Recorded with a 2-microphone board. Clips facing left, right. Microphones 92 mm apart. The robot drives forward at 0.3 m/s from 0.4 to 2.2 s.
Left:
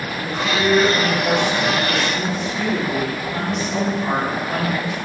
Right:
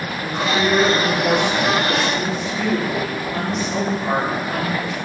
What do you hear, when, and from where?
0.2 s a woman speaking: 5° right (ahead or behind), 0.8 m; by 5.0 s centre (ahead or behind), 1.2 m